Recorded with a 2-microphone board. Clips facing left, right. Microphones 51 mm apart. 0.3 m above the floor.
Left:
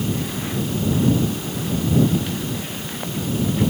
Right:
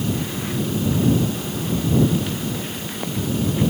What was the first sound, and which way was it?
Only background noise.